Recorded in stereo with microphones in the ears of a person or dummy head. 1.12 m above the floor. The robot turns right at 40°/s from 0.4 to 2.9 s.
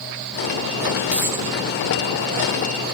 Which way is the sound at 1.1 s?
5° right (ahead or behind).